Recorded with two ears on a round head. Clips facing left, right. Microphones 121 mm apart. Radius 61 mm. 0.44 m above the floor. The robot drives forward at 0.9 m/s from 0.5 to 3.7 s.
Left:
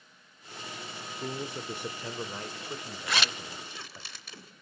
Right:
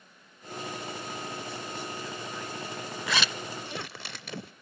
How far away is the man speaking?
About 1.0 m.